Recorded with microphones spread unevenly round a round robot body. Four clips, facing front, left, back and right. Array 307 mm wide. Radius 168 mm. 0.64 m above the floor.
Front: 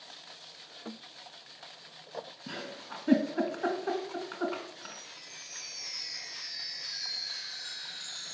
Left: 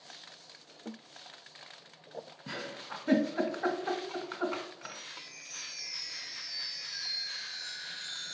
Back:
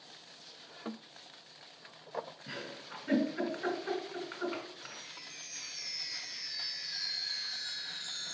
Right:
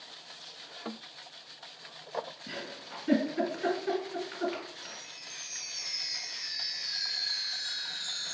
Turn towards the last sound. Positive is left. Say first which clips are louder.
# left 1 dB, front 2 dB
turn(degrees=-125)